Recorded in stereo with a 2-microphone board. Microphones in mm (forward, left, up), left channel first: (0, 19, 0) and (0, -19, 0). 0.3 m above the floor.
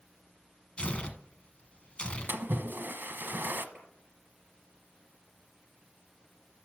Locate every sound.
0.8 s tearing paper: 30° left (ahead or behind), 1.2 m
2.3 s a splash: 65° right (ahead or behind), 0.8 m
3.8 s a clap: 25° right (ahead or behind), 5 m